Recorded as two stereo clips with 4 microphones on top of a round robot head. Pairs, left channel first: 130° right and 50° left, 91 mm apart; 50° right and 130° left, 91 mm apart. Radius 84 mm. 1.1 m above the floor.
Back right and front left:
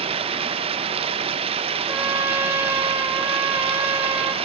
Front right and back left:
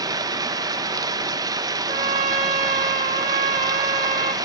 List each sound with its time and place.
0.0 s running water: 75° left, 0.7 m
1.9 s a trumpet: 115° left, 0.7 m